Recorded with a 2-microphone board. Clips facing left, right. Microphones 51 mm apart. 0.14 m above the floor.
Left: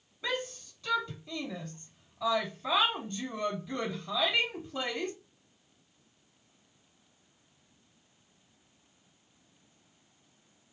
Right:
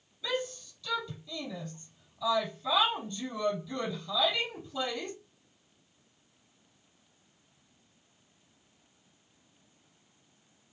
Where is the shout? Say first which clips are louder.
Right 1 dB; 40° left (ahead or behind), 5 m.